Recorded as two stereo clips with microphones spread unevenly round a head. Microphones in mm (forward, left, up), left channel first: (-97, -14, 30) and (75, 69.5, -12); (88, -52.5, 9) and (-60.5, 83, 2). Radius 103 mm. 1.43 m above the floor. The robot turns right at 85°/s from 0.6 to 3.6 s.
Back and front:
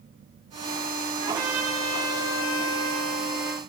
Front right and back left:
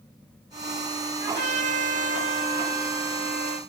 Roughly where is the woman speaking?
No woman speaking in this recording.